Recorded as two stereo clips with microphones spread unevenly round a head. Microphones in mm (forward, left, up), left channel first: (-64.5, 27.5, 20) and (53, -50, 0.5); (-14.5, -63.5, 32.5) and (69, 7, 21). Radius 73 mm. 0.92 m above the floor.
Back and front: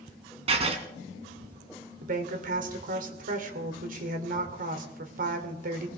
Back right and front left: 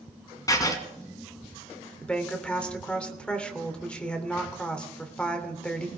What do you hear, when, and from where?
0.5 s writing: 85° right, 2 m
2.0 s a woman speaking: 60° right, 3 m